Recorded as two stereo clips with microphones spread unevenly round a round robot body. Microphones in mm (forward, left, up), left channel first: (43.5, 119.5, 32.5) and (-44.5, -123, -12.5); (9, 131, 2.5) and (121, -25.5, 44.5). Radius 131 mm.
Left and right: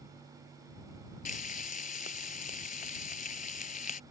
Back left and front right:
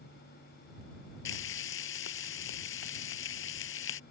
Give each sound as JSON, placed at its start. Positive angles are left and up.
{"t": 1.2, "sound": "frying", "azimuth_deg": 130}